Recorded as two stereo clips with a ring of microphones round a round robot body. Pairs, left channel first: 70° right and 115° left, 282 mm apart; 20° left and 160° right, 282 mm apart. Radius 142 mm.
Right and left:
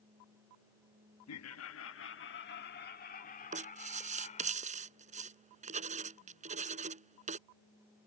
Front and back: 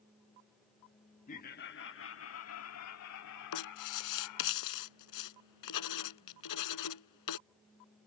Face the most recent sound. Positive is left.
turn(degrees=45)